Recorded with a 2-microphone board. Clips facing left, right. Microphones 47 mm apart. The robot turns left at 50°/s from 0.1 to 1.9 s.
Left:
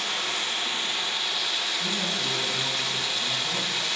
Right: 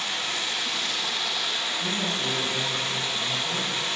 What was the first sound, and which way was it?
Running water, 65° left.